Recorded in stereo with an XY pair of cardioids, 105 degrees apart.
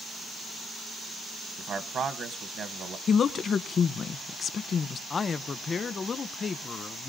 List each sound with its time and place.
1.6 s a man speaking: 65° right, 0.9 m
3.1 s a woman speaking: 50° left, 0.8 m
5.1 s a man speaking: 40° left, 0.7 m